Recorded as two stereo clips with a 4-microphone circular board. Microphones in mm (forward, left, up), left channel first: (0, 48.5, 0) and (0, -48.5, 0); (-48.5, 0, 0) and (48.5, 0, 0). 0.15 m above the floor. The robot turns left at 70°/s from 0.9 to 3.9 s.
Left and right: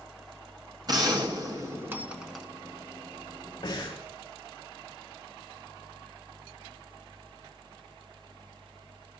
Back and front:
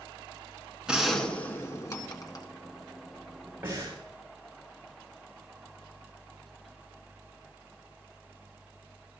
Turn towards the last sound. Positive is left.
turn(degrees=50)